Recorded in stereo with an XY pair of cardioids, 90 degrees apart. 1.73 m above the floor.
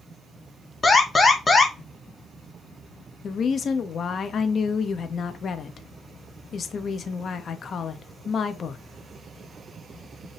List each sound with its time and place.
0.8 s an alarm: 25° left, 1.7 m
3.2 s a woman speaking: 55° left, 0.9 m